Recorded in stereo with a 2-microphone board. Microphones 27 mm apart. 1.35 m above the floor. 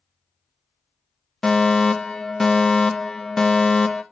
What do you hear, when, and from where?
1.4 s a fire alarm: 20° left (ahead or behind), 0.7 m